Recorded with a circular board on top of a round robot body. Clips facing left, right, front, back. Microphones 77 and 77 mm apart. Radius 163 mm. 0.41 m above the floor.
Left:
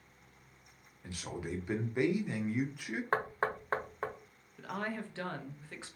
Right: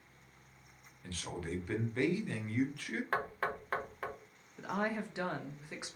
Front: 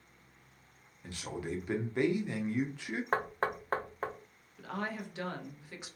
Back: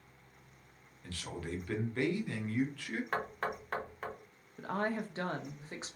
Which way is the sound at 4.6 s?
155° right.